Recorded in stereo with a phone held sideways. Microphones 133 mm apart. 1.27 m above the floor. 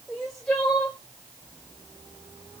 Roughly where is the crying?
Centre.